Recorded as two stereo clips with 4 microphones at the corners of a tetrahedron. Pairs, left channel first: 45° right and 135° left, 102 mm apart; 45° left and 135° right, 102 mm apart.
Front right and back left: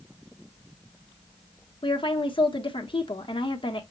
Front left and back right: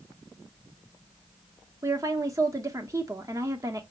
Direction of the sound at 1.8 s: 80° right.